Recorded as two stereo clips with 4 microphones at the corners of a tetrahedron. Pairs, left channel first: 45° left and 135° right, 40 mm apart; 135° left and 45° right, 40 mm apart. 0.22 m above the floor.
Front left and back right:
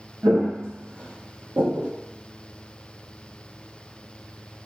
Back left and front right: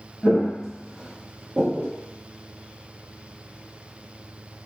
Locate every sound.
0.2 s footsteps: 165° right, 0.8 m; by 1.9 s 105° right, 1.1 m